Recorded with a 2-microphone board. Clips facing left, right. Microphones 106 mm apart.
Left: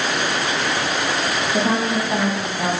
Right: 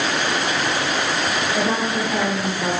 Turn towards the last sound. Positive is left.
turn(degrees=30)  # may be behind; listen again after turning